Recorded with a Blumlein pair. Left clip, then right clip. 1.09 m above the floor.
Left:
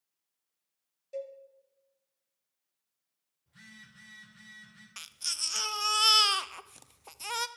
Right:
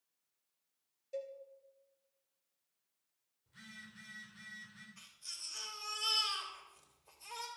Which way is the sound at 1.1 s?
5° left.